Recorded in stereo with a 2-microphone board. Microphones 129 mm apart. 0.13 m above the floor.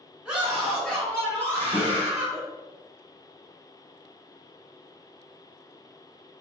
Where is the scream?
5° right (ahead or behind), 1.2 m; by 2.4 s 25° left (ahead or behind), 1.9 m.